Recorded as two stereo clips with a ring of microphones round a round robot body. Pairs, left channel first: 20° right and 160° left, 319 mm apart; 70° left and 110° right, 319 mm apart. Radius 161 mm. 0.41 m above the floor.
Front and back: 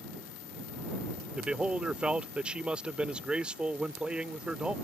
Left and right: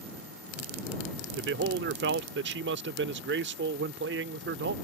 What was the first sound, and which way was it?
A man speaking, 120° right.